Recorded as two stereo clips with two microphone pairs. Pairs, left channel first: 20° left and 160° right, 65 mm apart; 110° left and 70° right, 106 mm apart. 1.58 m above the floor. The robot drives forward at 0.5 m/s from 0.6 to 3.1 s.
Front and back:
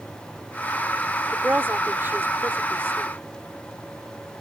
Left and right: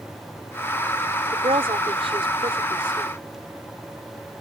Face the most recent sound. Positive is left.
turn(degrees=-105)